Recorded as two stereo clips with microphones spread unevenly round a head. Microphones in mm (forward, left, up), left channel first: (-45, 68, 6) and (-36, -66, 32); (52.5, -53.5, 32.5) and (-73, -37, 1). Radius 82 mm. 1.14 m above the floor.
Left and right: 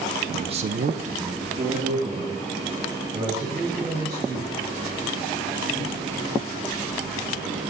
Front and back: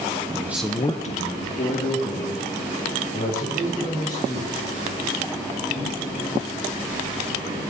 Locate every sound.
0.3 s a man speaking: 155° right, 0.7 m; by 4.5 s 15° right, 5.5 m